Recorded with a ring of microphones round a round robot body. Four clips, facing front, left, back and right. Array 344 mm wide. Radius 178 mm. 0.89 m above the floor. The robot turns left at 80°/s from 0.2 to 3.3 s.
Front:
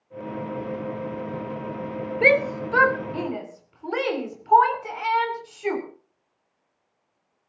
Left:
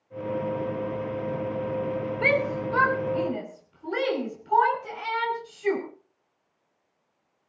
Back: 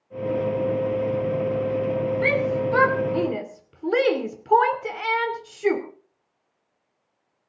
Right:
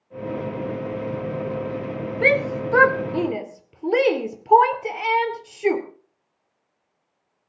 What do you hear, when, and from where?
2.2 s a shout: 35° right, 3 m; by 5.8 s 120° right, 3 m